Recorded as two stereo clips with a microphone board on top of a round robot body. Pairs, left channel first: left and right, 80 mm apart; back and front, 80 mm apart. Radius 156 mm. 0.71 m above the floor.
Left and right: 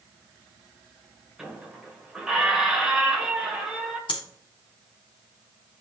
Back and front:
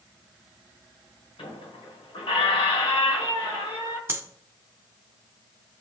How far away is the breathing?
About 0.5 m.